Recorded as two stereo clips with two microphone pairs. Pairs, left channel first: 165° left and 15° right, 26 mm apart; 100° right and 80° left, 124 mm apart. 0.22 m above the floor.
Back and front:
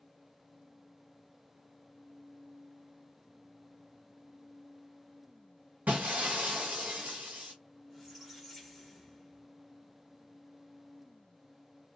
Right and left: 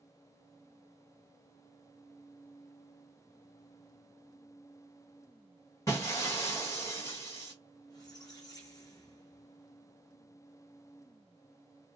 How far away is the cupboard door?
I don't hear a cupboard door.